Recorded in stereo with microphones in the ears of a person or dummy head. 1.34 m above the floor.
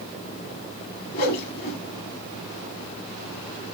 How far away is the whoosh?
About 1.0 m.